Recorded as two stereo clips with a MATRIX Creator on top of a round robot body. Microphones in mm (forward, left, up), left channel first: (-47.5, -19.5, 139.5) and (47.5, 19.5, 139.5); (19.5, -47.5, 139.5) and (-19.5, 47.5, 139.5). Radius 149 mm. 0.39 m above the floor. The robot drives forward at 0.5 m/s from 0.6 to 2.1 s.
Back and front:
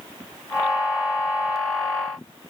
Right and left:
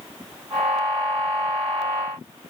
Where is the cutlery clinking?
No cutlery clinking in this recording.